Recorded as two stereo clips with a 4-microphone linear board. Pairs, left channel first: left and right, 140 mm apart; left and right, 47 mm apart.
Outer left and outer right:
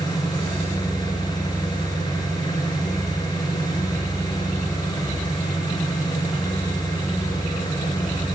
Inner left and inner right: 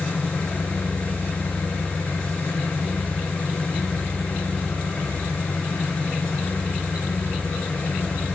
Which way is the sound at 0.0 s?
30° left (ahead or behind).